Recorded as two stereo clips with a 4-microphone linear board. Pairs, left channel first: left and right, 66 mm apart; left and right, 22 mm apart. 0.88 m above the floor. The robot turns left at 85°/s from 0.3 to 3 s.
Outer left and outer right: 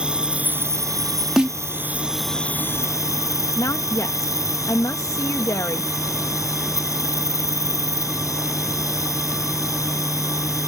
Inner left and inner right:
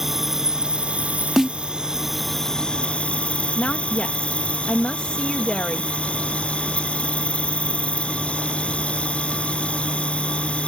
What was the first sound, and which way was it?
An insect, 15° right.